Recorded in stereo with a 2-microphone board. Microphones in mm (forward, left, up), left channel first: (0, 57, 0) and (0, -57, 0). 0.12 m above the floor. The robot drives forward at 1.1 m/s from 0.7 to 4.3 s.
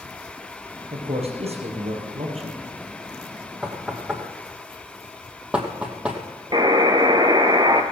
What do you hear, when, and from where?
0.9 s a man speaking: 60° right (ahead or behind), 4 m
3.6 s knocking: 5° right (ahead or behind), 3 m; by 6.2 s 10° right (ahead or behind), 2 m
6.5 s a buzzer: 35° right (ahead or behind), 1.2 m